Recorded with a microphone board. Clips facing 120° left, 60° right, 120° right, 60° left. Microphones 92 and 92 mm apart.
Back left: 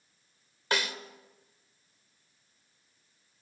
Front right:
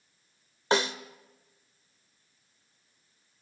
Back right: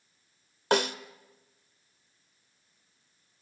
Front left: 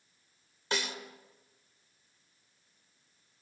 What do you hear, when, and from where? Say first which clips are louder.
0.7 s a snare drum: front right 6 dB, back right 10 dB; 115° right, 1.0 m